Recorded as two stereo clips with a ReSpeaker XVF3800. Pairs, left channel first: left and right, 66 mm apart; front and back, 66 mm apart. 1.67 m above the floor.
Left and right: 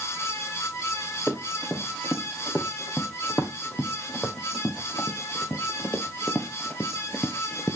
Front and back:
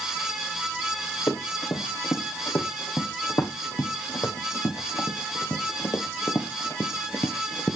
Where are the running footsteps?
20° left, 5.5 m; by 7.8 s 50° left, 1.9 m.